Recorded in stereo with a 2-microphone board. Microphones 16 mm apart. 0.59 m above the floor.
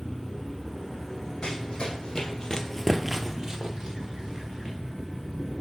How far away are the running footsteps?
About 1.5 m.